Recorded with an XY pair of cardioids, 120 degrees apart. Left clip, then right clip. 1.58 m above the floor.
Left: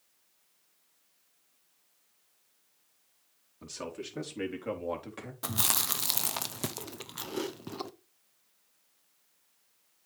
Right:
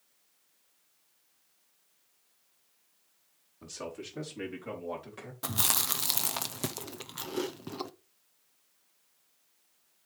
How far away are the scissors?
I don't hear scissors.